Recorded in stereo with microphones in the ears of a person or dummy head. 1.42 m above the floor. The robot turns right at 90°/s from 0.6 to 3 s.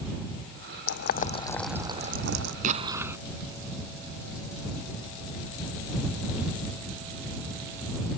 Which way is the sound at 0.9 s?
75° left (ahead or behind).